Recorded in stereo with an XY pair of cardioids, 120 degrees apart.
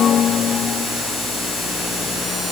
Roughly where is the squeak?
I don't hear a squeak.